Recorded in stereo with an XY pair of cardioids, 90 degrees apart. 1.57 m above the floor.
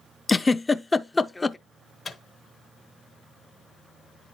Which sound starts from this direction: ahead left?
A microwave, at 2.0 s.